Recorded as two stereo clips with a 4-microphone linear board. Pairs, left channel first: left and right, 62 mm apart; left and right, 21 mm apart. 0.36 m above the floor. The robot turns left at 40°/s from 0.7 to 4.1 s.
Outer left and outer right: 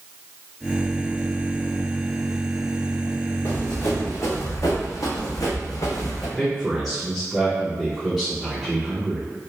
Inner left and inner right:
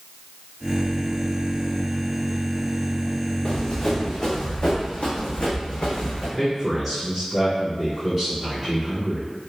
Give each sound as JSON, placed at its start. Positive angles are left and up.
{"t": 3.5, "sound": "running footsteps", "side_deg": 65, "distance_m": 1.7}
{"t": 6.4, "sound": "a man speaking", "side_deg": 0, "distance_m": 1.2}